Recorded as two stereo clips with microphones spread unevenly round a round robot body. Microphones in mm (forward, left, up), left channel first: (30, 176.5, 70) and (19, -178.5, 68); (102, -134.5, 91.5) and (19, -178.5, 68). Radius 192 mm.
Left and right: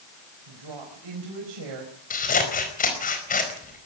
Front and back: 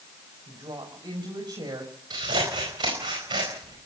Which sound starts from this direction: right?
A woman speaking, at 0.5 s.